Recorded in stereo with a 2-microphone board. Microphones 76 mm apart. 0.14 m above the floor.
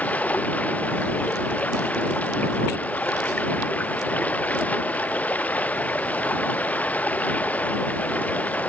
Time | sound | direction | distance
0.0 | running water | 20° left (ahead or behind) | ?